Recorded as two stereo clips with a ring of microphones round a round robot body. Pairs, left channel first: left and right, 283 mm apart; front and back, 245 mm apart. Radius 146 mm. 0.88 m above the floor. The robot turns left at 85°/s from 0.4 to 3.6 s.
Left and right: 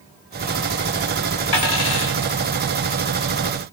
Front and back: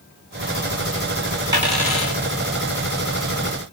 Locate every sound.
1.5 s a dropped coin: 105° left, 1.4 m; by 2.2 s 50° left, 1.4 m